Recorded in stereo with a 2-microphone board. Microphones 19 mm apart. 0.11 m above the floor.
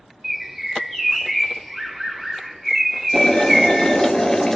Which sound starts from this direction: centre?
A bird, at 0.2 s.